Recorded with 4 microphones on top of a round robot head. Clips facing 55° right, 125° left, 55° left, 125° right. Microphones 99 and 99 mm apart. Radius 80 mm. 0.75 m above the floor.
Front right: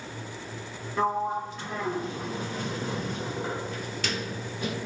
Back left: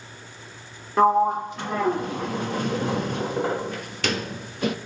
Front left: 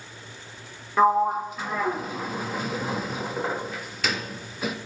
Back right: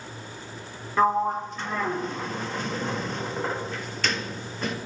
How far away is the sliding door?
About 0.8 m.